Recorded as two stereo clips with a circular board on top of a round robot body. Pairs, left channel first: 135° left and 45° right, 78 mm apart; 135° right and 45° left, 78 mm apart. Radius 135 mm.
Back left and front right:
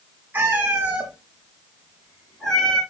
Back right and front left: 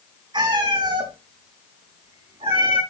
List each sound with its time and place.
0.3 s a cat meowing: 25° left, 4.5 m; by 2.8 s 55° left, 4 m